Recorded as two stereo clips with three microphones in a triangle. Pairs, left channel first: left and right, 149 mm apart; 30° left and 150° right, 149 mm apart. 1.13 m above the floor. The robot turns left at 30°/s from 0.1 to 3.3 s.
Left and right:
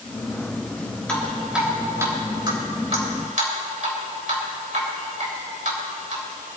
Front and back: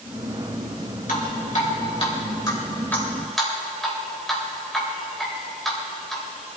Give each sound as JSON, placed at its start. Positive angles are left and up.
{"t": 1.1, "sound": "dripping", "azimuth_deg": 10, "distance_m": 3.0}